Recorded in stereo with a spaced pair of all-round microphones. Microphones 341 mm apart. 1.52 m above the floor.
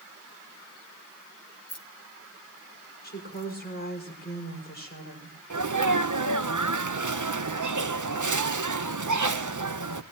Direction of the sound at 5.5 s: 60° right (ahead or behind).